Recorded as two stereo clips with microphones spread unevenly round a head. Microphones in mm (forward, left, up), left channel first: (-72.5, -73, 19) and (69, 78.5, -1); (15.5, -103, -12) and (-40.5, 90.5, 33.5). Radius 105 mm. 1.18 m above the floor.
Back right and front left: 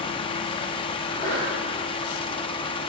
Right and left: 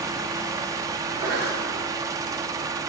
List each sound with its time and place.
0.0 s a fan: 170° left, 0.8 m
1.0 s a sneeze: 160° left, 8 m